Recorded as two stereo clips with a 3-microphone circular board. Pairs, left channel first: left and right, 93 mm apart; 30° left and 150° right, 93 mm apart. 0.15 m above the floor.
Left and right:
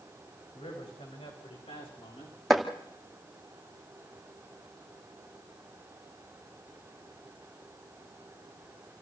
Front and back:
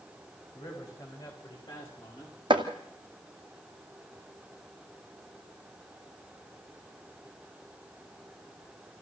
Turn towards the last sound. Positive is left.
turn(degrees=180)